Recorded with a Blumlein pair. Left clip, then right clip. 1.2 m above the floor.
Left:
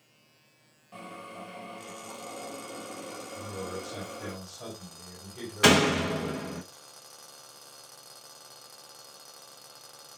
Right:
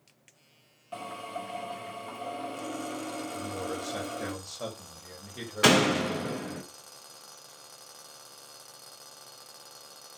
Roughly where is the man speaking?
Right.